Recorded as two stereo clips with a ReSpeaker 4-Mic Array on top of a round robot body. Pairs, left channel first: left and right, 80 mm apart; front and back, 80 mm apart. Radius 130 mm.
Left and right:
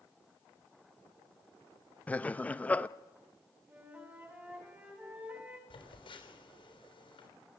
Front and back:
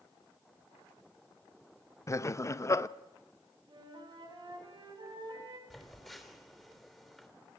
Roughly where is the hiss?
No hiss in this recording.